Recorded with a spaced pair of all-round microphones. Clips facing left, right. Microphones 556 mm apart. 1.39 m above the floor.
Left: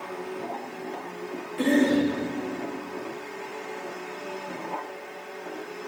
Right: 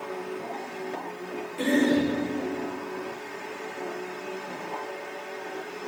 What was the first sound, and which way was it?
A cough, 40° left (ahead or behind).